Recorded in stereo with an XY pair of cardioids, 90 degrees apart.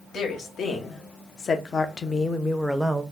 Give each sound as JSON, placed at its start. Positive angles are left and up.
{"t": 0.1, "sound": "a woman speaking", "azimuth_deg": 70, "distance_m": 1.4}